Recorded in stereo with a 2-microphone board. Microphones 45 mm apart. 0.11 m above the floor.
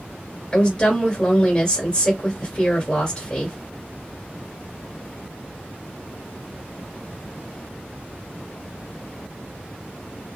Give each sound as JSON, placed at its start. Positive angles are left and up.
{"t": 0.5, "sound": "a woman speaking", "side_deg": 30, "distance_m": 1.8}